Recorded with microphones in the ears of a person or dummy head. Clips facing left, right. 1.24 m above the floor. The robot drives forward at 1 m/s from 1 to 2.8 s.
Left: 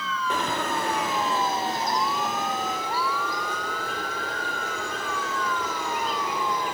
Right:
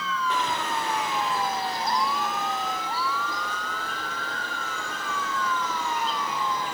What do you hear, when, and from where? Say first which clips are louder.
0.3 s a bird: left 3 dB; 45° left (ahead or behind), 0.6 m; by 6.7 s 10° left (ahead or behind), 2 m